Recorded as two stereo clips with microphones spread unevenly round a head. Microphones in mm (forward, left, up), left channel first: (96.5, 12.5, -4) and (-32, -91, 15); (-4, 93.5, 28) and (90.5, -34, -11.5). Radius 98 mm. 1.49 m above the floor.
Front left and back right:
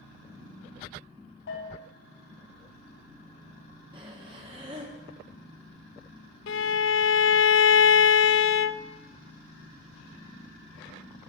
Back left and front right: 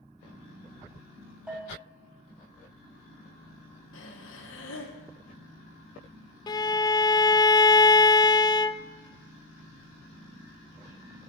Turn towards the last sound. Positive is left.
turn(degrees=60)